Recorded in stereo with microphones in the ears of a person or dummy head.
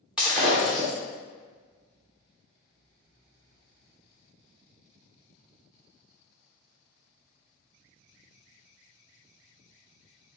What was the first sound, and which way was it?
Breaking glass, 5° right (ahead or behind).